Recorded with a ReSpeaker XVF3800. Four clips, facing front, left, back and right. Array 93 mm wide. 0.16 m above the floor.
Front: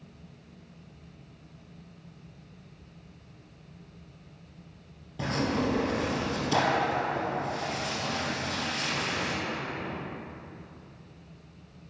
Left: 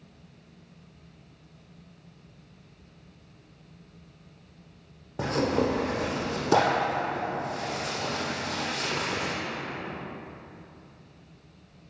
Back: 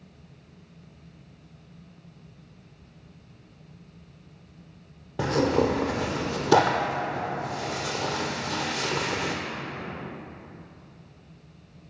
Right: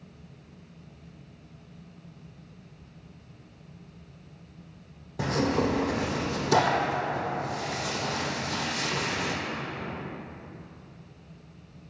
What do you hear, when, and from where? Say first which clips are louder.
5.2 s tearing paper: even, back 6 dB; 150° left, 1.4 m